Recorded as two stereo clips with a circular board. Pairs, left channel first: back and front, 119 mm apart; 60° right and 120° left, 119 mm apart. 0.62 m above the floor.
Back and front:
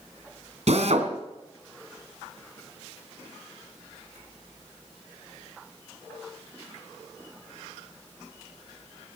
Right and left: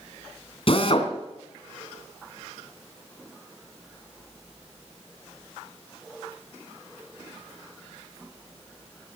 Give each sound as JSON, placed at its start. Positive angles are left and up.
{"t": 0.7, "sound": "a drill", "azimuth_deg": -20, "distance_m": 2.5}